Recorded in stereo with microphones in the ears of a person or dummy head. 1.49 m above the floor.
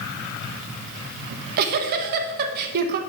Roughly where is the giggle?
Right.